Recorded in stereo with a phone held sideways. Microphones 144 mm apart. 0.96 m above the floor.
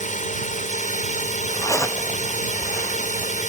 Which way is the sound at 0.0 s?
60° left (ahead or behind).